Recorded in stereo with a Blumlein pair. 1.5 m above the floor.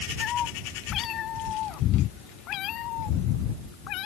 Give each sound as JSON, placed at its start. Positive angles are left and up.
{"t": 0.2, "sound": "a cat meowing", "azimuth_deg": 30}